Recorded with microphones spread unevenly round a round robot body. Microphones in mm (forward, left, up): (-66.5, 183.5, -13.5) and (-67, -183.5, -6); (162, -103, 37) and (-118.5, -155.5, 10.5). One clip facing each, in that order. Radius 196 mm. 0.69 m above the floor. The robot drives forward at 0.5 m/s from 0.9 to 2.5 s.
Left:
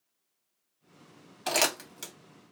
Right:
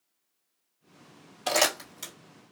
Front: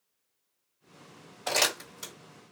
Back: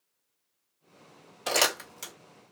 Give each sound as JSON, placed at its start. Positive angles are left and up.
{"t": 1.5, "sound": "crumpling", "azimuth_deg": 165, "distance_m": 1.8}